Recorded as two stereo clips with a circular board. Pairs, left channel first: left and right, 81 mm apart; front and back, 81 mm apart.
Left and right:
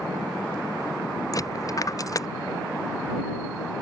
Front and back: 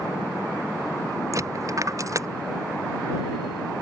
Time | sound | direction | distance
1.3 | a dropped coin | 135° left | ?